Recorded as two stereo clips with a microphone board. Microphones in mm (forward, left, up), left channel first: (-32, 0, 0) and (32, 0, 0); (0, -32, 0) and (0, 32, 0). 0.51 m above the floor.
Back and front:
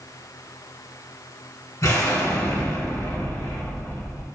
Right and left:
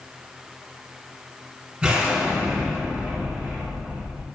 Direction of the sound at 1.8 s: 165° left.